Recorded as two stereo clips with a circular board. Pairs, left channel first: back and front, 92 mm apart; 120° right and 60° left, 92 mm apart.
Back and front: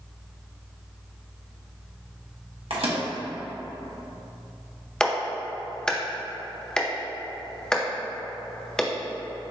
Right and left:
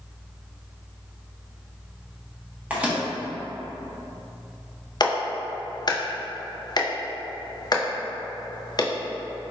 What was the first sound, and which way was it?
A microwave, 15° right.